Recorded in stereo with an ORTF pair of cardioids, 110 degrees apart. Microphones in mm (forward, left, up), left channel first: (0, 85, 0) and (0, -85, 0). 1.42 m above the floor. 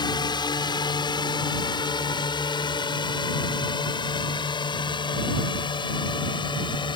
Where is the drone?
30° left.